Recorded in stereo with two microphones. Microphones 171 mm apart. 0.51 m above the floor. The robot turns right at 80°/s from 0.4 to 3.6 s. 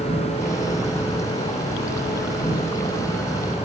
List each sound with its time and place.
0.0 s an insect: 50° right, 6 m; by 3.7 s 155° right, 6 m